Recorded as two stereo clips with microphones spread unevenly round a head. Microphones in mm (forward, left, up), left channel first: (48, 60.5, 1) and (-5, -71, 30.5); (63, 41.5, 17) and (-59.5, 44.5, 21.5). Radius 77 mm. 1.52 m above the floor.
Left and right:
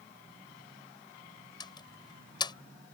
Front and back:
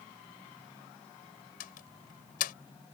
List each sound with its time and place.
1.6 s a door slam: 5° left